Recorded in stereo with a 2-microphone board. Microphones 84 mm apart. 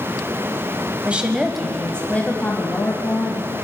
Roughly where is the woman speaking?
Centre.